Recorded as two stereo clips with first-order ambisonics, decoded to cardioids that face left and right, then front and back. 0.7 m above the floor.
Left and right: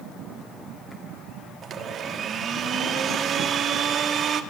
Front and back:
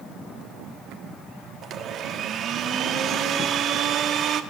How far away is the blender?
About 1.4 m.